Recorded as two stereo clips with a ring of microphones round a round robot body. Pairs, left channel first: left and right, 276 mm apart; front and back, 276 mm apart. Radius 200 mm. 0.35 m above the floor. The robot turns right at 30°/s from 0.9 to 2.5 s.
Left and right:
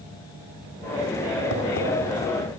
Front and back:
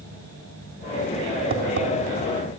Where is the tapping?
140° left, 3.5 m; by 1.9 s 150° left, 3.5 m.